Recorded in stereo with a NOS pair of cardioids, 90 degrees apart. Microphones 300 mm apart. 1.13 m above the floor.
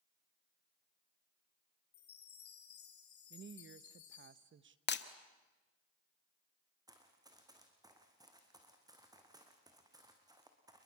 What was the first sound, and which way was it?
A chime, 70° left.